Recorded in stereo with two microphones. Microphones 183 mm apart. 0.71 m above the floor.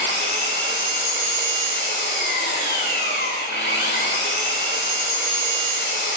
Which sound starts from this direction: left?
An engine running, at 0.0 s.